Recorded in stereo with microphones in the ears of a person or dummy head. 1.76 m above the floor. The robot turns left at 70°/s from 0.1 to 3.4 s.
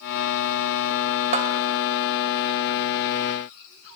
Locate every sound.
1.3 s a bell: 40° right (ahead or behind), 0.7 m; by 1.6 s 45° right (ahead or behind), 0.7 m